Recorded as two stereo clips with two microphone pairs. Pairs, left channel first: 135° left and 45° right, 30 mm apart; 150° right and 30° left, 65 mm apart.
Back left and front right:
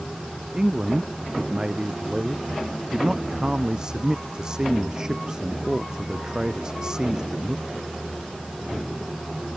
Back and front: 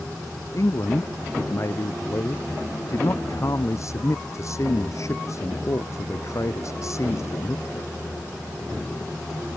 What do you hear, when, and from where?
0.5 s a man speaking: 110° right